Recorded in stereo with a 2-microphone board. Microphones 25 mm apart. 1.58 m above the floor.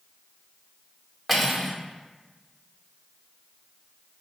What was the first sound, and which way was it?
Cutlery clinking, 10° left (ahead or behind).